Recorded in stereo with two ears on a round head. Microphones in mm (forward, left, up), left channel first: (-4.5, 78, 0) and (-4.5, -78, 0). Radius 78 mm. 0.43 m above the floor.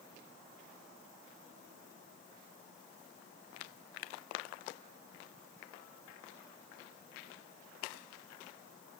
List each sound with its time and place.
Only background noise.